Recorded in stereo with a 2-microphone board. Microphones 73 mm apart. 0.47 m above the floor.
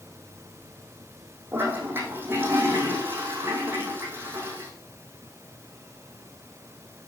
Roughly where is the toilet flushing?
Right.